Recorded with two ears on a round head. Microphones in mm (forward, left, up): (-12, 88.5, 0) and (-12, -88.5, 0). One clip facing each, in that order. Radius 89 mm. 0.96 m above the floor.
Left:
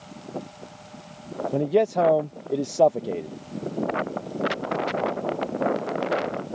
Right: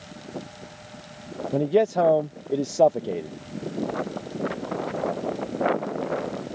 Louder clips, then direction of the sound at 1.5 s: Right 1 dB; centre (ahead or behind).